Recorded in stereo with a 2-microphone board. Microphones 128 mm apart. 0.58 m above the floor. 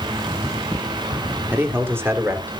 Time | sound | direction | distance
1.5 | a man speaking | 15° right (ahead or behind) | 1.7 m